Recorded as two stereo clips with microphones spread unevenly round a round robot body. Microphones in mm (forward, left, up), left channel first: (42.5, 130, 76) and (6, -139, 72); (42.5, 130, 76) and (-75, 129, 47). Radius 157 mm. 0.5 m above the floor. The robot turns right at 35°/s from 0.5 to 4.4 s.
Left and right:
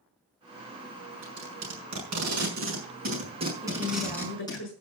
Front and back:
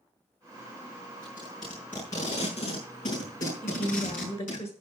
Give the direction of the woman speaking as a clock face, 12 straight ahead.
12 o'clock.